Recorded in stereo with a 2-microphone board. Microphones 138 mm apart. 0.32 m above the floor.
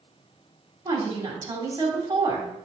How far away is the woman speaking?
About 1.8 m.